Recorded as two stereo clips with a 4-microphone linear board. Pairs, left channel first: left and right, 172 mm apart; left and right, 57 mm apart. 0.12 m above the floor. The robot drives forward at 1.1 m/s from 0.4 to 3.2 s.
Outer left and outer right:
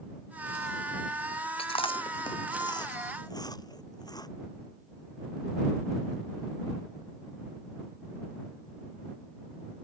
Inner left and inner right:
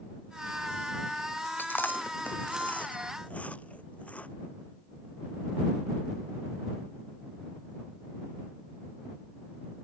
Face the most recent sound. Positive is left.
turn(degrees=25)  # may be behind; listen again after turning